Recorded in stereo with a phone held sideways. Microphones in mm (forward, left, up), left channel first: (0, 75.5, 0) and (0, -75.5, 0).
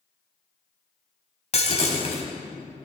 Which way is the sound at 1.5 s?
50° left (ahead or behind).